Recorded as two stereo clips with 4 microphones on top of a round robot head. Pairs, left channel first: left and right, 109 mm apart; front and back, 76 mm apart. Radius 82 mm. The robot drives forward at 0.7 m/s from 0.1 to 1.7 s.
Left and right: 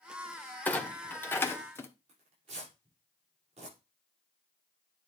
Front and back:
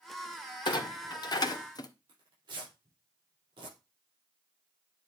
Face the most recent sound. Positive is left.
turn(degrees=-135)